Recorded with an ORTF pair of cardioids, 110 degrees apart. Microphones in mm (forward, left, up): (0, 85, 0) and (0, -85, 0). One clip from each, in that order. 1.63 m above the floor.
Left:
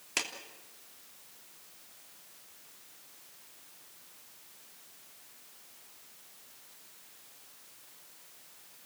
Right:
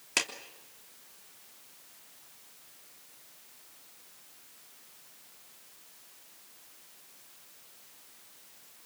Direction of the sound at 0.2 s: 25° right.